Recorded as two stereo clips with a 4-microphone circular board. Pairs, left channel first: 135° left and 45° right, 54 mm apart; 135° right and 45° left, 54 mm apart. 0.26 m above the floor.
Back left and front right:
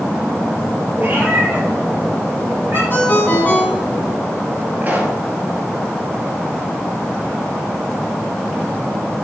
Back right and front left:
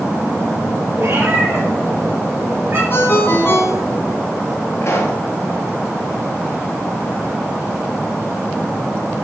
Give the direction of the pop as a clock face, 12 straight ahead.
3 o'clock.